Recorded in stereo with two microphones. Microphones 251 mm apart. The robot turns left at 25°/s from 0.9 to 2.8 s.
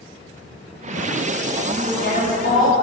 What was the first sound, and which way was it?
A woman speaking, 35° left (ahead or behind).